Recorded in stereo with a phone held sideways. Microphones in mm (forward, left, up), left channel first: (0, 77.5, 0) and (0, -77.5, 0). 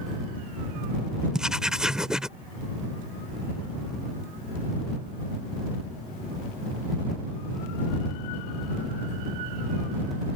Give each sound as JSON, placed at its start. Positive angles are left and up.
{"t": 1.3, "sound": "writing", "side_deg": -5}